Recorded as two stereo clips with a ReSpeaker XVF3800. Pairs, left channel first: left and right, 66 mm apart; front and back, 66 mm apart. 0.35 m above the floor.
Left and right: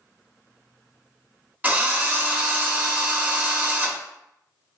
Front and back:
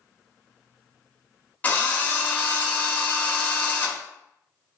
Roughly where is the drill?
Ahead right.